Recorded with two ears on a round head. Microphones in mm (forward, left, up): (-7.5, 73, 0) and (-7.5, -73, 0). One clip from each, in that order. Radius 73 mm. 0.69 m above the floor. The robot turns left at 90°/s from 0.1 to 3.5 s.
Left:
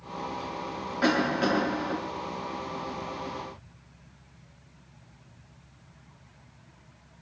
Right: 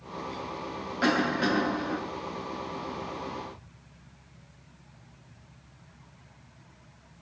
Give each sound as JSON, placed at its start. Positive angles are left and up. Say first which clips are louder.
{"t": 1.0, "sound": "a cough", "louder": "left 1 dB", "azimuth_deg": -150, "distance_m": 1.3}